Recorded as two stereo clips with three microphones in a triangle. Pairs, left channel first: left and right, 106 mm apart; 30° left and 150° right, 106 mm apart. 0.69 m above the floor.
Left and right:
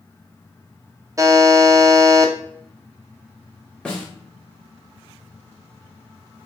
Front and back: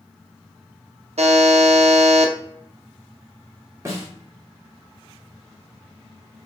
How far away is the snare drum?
About 1.0 m.